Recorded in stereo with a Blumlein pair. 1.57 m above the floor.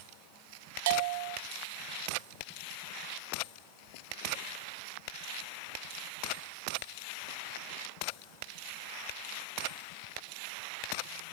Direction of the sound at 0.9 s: 50° right.